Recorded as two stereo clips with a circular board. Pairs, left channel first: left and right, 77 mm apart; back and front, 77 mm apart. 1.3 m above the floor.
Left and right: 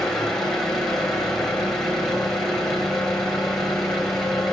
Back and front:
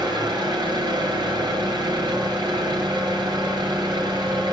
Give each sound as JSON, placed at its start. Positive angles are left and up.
{"t": 0.0, "sound": "an engine running", "azimuth_deg": 5, "distance_m": 3.0}